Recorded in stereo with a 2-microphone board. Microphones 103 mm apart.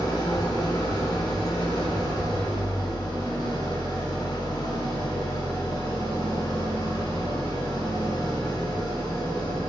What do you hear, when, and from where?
0.0 s an engine running: 35° left (ahead or behind), 1.7 m